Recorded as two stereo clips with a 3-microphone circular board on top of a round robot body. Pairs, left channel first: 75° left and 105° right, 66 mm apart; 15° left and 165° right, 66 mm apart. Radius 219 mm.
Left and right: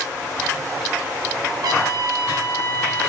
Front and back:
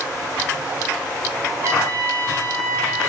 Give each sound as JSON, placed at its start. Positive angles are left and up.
{"t": 1.6, "sound": "a trumpet", "azimuth_deg": -120, "distance_m": 5.5}